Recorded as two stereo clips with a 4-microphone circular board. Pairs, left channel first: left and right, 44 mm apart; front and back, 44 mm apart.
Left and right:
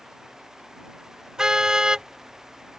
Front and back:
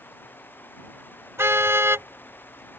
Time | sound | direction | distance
1.4 | a car horn | 165° right | ?